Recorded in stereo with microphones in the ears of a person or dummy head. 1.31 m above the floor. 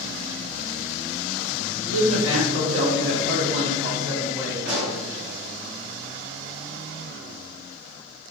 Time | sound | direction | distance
1.9 | a man speaking | 75° right (ahead or behind) | 1.2 m
4.7 | a pop | 65° right (ahead or behind) | 0.9 m